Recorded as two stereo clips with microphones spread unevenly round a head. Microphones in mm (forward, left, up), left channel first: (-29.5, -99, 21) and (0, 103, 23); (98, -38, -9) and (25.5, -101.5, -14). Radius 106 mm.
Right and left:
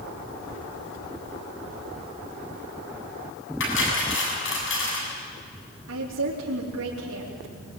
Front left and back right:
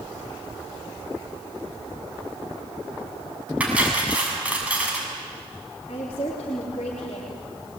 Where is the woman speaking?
110° left, 4 m.